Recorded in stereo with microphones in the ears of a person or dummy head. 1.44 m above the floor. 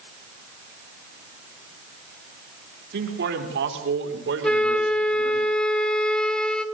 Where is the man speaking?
70° right (ahead or behind), 4.5 m; by 5.4 s 90° right, 5 m.